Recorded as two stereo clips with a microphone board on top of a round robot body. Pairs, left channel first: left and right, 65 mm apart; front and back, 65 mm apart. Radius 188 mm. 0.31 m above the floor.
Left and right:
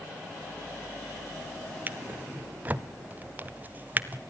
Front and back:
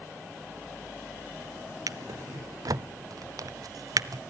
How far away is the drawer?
About 0.6 m.